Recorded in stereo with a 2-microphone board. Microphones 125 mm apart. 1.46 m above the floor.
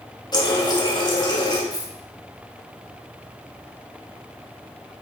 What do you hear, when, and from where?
0.3 s a running tap: 35° left (ahead or behind), 1.9 m
1.7 s a dropped coin: 30° left (ahead or behind), 3.5 m